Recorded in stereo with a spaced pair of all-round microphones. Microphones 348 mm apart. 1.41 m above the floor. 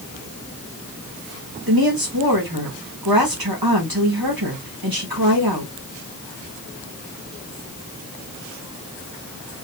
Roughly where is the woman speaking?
Right.